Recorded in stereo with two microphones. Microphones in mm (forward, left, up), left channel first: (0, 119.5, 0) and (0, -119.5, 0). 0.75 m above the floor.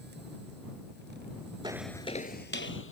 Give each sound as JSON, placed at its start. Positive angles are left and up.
{"t": 1.6, "sound": "footsteps", "side_deg": -20}